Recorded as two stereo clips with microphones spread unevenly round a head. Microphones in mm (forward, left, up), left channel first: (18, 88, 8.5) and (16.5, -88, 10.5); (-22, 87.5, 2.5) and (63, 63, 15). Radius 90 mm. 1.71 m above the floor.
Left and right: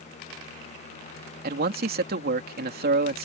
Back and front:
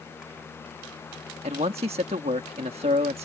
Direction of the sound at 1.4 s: 55° right.